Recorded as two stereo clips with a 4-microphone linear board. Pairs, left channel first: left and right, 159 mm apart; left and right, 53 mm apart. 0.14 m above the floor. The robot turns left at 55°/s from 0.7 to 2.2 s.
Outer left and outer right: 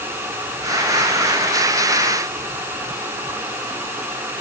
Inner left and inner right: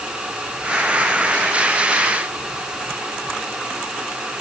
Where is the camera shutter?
I don't hear a camera shutter.